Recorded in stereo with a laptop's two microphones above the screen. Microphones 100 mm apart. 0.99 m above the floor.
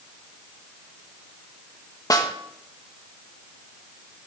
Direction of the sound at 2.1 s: 35° left (ahead or behind).